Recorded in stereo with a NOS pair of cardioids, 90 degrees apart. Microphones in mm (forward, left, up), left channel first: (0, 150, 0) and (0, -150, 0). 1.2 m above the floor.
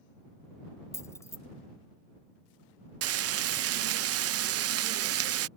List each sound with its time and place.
0.9 s keys jangling: 10° left
3.0 s frying: 55° right